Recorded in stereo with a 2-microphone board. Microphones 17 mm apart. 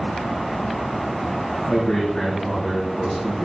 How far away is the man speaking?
About 4.5 m.